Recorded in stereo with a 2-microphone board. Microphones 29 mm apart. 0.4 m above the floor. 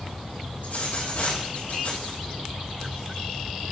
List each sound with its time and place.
0.6 s a dropped coin: 70° left (ahead or behind), 4.5 m